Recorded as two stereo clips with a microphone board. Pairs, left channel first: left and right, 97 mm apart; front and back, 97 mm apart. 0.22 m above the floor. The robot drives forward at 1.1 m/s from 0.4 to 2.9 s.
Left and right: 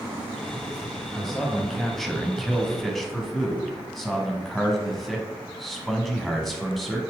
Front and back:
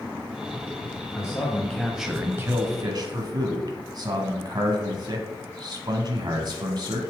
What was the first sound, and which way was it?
A man speaking, 5° left.